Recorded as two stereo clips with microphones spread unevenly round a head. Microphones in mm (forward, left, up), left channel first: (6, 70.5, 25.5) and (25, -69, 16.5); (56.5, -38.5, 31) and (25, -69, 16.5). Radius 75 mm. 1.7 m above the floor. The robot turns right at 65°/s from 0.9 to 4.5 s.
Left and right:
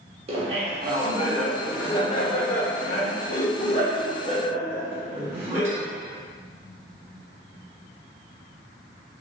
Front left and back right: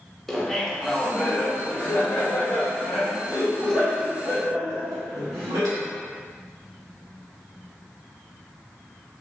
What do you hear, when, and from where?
0.3 s laughter: 35° right, 0.9 m; by 5.8 s 160° right, 0.9 m